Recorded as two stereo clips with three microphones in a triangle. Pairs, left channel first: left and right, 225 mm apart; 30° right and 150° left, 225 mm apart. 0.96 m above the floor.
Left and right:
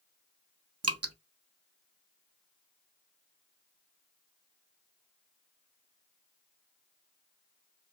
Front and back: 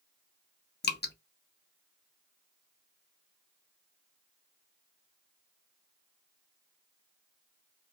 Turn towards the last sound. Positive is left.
turn(degrees=-80)